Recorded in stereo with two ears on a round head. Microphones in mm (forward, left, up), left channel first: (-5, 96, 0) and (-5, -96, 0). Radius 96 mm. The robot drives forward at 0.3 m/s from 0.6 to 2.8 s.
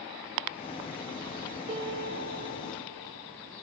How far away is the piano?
About 3 m.